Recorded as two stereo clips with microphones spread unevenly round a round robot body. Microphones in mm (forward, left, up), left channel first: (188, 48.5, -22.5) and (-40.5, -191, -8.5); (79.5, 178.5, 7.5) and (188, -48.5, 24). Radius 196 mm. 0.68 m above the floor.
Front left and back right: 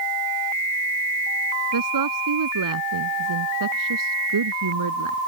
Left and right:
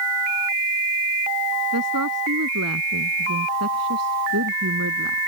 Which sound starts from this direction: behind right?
A woman speaking, at 1.7 s.